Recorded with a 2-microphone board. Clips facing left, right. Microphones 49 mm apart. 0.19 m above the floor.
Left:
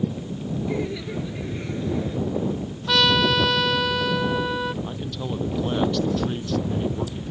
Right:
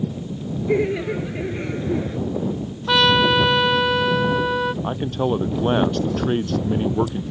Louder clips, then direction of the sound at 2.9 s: Right 3 dB; 15° right (ahead or behind).